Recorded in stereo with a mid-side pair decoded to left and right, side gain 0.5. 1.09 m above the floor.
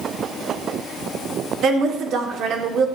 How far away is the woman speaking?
About 2.5 m.